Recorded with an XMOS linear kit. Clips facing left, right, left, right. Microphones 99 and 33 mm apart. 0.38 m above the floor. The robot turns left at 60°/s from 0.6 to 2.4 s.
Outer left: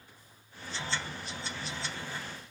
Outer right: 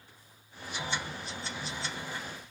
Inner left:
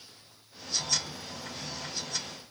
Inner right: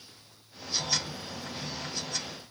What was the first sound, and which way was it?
Only background noise.